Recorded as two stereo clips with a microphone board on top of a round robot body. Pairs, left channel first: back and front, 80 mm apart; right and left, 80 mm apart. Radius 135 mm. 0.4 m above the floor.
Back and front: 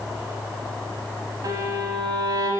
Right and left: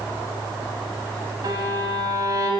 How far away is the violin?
About 0.6 m.